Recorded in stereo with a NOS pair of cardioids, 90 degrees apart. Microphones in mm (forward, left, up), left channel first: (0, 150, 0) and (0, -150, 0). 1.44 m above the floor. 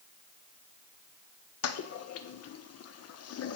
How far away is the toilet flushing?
About 1.2 m.